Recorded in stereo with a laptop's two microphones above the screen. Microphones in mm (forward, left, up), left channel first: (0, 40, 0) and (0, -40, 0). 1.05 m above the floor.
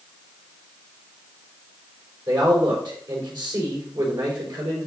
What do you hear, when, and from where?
2.3 s a man speaking: 75° right (ahead or behind), 5 m